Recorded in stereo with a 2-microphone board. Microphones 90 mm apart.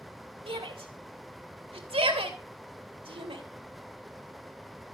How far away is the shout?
About 2.5 m.